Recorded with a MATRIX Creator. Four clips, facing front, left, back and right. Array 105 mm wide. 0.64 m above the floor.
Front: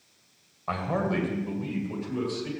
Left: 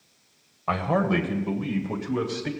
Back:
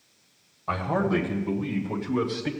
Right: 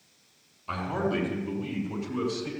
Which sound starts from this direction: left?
A man speaking, at 0.7 s.